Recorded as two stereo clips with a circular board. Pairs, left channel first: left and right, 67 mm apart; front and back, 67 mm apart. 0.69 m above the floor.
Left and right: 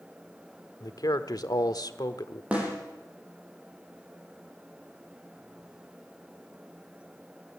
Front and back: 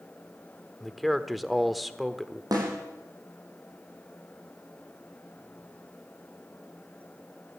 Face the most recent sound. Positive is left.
turn(degrees=-160)